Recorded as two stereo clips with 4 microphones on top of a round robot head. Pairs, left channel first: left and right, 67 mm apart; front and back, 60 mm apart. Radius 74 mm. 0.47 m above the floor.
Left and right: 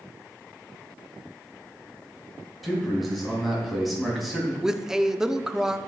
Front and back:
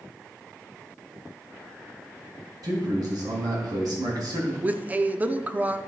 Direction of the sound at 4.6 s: 160° right.